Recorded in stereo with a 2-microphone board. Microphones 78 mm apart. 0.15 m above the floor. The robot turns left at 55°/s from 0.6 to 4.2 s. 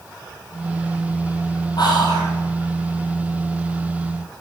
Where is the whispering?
75° left, 3.5 m; by 2.3 s 45° left, 3.5 m.